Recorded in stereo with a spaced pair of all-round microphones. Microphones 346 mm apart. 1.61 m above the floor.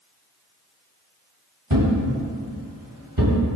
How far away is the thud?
About 3.5 m.